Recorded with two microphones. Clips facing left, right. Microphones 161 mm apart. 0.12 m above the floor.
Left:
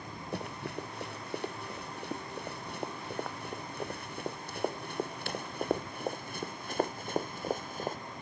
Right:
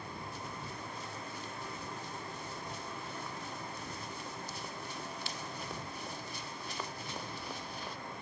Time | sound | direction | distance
0.3 | running footsteps | 75° left (ahead or behind) | ?